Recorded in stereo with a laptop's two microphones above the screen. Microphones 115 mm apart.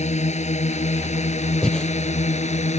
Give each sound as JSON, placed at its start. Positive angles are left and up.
{"t": 0.0, "sound": "a drone", "side_deg": 80}
{"t": 1.6, "sound": "breathing", "side_deg": 5}